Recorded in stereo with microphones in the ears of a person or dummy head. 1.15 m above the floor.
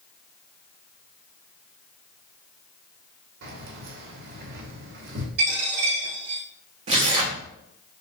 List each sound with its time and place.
3.4 s keys jangling: 65° right (ahead or behind), 1.0 m
5.4 s a dropped coin: 55° right (ahead or behind), 2.5 m
6.9 s tearing paper: 40° right (ahead or behind), 0.8 m